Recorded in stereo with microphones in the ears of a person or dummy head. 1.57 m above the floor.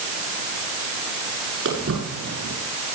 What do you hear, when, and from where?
1.6 s footsteps: 70° right (ahead or behind), 7 m